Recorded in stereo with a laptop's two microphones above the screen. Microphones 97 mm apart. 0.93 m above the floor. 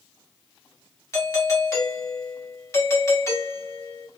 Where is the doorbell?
30° left (ahead or behind), 1.2 m.